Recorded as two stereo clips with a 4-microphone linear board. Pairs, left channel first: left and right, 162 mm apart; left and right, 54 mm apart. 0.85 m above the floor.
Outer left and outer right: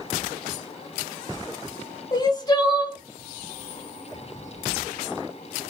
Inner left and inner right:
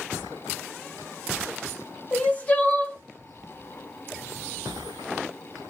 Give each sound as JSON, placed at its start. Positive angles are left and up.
{"t": 2.1, "sound": "crying", "side_deg": 25, "distance_m": 0.8}